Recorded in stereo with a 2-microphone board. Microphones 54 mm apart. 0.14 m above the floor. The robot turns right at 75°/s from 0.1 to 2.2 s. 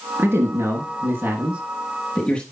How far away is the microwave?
I don't hear a microwave.